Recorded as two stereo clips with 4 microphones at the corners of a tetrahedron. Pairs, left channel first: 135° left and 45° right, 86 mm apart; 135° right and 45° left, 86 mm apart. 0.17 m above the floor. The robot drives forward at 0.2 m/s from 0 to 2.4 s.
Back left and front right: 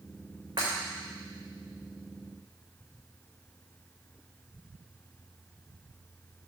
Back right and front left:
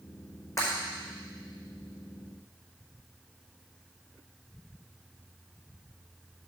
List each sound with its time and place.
0.6 s breaking glass: 85° right, 5 m